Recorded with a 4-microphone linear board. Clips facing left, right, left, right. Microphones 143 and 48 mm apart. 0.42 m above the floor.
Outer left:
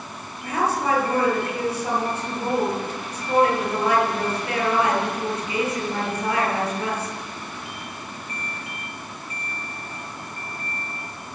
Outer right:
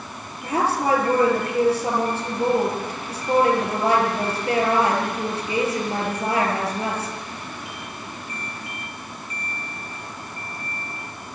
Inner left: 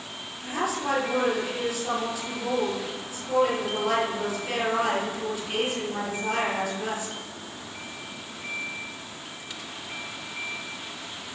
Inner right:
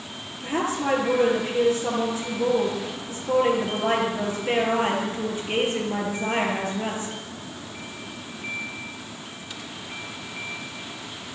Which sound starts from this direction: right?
A woman speaking, at 0.4 s.